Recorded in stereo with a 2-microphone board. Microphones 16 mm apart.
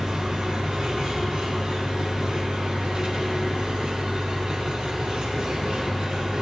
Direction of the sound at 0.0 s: 60° right (ahead or behind).